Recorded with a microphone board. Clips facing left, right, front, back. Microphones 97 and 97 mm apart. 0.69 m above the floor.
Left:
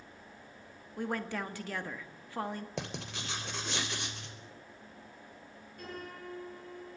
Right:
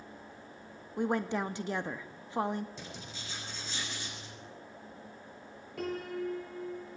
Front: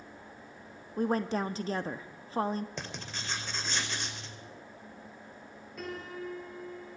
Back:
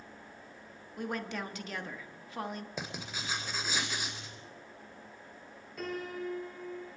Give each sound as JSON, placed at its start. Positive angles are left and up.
{"t": 1.0, "sound": "a woman speaking", "azimuth_deg": -35, "distance_m": 1.3}
{"t": 2.8, "sound": "writing", "azimuth_deg": 100, "distance_m": 3.0}
{"t": 5.8, "sound": "a piano", "azimuth_deg": -90, "distance_m": 7.0}